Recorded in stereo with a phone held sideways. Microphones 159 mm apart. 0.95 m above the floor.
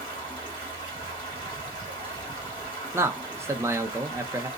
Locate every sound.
0.0 s running water: 35° left (ahead or behind), 2 m
2.9 s a man speaking: 15° right (ahead or behind), 0.6 m